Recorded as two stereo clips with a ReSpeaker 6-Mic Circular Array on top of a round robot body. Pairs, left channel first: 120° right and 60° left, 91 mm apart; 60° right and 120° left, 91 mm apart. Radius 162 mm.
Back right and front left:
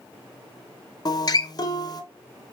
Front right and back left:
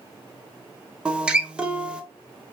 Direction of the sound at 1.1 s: 160° right.